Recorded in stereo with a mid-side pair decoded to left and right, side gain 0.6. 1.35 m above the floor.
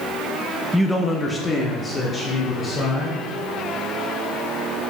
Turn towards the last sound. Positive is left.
turn(degrees=30)